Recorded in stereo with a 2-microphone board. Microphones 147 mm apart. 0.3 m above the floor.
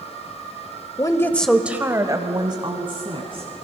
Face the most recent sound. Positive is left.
turn(degrees=-40)  # may be behind; listen again after turning